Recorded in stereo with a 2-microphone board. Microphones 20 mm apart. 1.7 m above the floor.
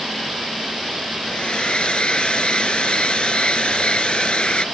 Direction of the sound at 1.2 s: 60° left (ahead or behind).